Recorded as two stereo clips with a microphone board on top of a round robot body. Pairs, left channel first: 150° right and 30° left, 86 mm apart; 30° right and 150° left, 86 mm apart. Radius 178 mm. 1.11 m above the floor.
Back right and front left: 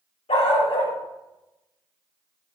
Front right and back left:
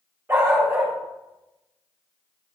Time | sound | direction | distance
0.3 | a dog barking | 145° right | 1.7 m